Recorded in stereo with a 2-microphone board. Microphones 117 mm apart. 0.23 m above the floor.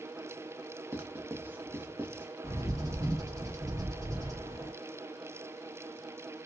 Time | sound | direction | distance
0.9 | writing | 15° right (ahead or behind) | 0.6 m
2.4 | a bird | 30° right (ahead or behind) | 1.3 m